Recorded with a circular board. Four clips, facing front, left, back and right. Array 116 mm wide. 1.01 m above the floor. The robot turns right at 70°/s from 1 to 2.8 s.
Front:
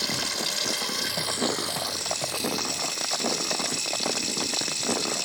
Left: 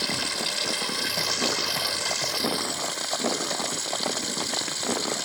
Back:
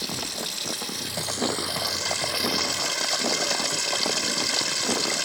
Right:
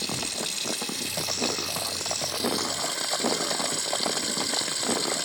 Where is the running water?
60° left; by 5.2 s 175° right.